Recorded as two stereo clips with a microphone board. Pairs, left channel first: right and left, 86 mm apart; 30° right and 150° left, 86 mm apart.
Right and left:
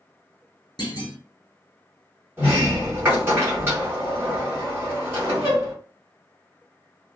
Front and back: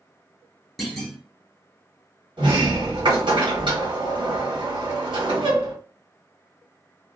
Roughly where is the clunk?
Behind right.